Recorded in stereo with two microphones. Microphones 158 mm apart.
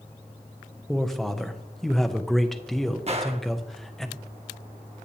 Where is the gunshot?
40° right (ahead or behind), 0.9 m.